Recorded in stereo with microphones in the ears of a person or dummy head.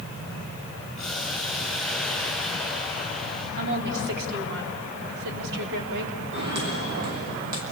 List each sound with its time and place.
1.0 s boiling: centre (ahead or behind), 8.5 m
3.6 s a woman speaking: 70° right (ahead or behind), 3.5 m
6.3 s footsteps: 60° right (ahead or behind), 4.5 m; by 7.6 s 50° right (ahead or behind), 4 m